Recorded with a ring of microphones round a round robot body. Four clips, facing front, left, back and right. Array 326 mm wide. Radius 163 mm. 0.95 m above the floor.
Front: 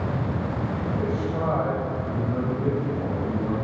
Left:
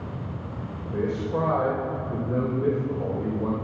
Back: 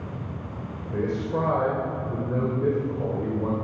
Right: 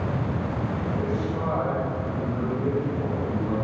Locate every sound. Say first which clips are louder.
0.9 s a man speaking: left 6 dB, back 4 dB; 145° left, 5 m